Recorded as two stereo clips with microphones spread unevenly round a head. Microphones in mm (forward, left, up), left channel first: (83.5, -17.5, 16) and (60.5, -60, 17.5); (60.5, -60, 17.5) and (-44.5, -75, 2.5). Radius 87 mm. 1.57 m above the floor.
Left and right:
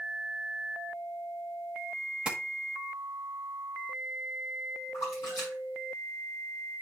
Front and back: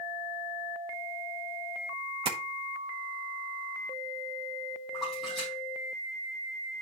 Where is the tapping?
175° right, 1.0 m.